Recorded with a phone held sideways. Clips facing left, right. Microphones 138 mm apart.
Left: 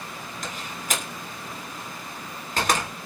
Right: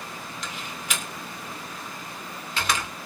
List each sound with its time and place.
0.4 s a door slam: 45° left (ahead or behind), 3 m